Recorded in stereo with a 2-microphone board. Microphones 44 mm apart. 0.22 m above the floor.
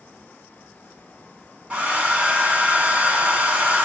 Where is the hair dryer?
30° right (ahead or behind), 1.1 m.